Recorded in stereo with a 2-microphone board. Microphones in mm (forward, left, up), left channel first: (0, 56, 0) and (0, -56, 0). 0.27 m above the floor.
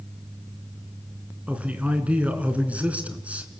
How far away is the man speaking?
About 3 m.